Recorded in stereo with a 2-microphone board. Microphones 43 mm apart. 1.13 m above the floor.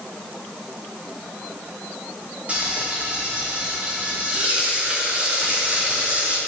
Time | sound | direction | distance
2.5 | frying | 30° right (ahead or behind) | 4.5 m